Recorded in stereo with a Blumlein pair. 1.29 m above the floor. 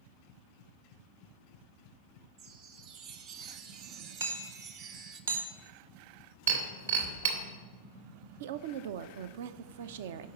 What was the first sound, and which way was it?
A chime, 40° right.